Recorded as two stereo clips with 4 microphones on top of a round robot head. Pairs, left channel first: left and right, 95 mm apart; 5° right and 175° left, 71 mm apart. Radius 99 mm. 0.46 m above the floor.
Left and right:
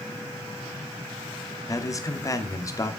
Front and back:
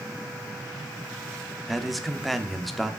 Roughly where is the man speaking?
Left.